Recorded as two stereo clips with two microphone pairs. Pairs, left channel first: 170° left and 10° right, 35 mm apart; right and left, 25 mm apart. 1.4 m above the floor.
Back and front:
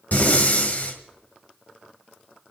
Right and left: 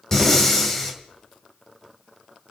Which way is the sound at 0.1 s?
165° right.